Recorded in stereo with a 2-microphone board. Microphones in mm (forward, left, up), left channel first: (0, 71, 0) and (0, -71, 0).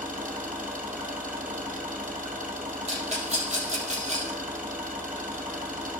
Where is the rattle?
50° right (ahead or behind), 2.5 m.